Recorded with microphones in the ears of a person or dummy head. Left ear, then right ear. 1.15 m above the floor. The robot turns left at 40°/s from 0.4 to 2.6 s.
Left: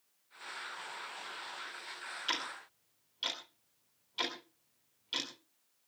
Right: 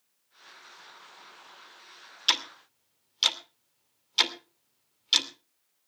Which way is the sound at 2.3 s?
40° right (ahead or behind).